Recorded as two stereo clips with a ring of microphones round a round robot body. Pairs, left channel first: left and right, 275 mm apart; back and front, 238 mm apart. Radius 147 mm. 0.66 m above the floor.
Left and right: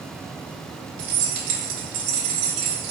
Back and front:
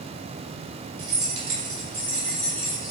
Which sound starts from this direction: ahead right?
Keys jangling, at 1.0 s.